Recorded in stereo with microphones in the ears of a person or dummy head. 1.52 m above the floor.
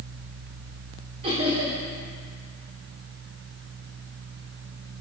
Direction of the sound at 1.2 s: 30° right (ahead or behind).